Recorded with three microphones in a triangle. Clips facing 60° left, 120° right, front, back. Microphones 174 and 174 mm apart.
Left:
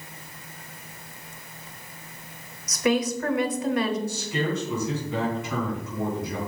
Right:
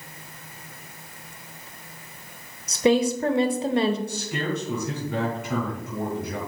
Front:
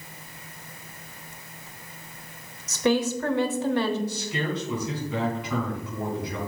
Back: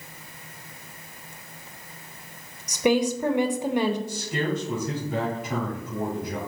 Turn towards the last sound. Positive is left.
turn(degrees=-145)